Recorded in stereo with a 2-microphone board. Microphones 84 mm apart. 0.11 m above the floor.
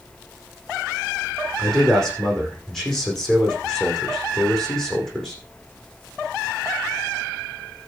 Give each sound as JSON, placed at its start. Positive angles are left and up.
{"t": 1.6, "sound": "a man speaking", "side_deg": 5, "distance_m": 5.5}